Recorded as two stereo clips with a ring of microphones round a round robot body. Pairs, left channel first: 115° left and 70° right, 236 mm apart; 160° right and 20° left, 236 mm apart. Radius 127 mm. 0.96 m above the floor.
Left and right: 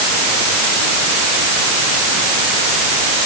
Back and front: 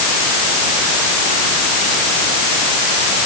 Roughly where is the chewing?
No chewing in this recording.